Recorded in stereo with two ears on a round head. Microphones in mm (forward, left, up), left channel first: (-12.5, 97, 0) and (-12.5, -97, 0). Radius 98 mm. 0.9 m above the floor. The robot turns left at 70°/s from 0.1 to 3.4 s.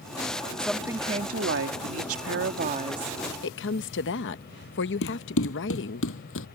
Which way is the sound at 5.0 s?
60° left (ahead or behind).